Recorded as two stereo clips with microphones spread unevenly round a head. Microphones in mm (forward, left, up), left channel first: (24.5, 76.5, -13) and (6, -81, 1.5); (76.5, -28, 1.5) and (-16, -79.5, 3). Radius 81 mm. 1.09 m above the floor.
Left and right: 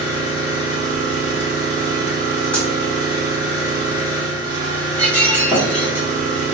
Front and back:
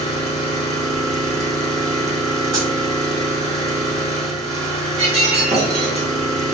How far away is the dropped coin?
About 0.9 m.